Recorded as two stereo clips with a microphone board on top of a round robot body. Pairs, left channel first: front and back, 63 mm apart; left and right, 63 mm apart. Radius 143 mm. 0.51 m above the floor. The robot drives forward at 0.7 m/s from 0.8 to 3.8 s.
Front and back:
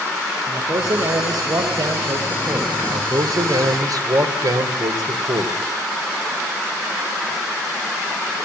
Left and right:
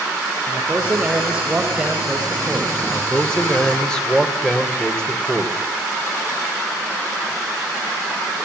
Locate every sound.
0.5 s a man speaking: 155° right, 3 m; by 2.7 s 165° right, 4 m
2.8 s a man speaking: 170° left, 3 m